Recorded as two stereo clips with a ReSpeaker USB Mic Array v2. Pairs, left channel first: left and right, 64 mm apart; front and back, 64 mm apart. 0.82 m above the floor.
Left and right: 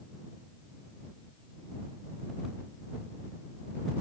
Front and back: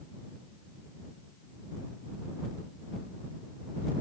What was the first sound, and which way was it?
Only background noise.